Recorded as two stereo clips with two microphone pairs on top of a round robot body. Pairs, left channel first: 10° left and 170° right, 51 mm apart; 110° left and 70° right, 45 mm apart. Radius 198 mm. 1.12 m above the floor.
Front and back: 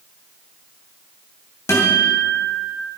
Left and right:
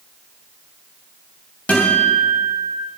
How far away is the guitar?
About 3 m.